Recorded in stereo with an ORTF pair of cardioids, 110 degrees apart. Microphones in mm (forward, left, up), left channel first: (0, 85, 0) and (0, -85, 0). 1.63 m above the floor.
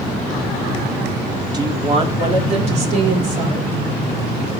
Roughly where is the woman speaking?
Ahead right.